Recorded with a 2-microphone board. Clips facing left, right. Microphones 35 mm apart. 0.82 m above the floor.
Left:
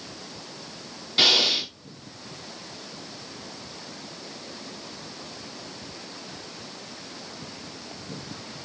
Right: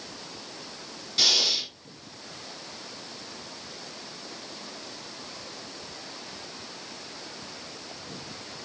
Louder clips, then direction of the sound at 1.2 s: Left 5 dB; 40° left (ahead or behind).